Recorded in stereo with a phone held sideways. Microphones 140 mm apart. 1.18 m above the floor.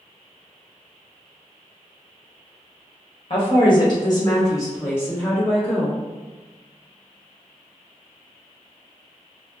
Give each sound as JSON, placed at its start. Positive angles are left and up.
{"t": 3.3, "sound": "a woman speaking", "side_deg": 45, "distance_m": 1.3}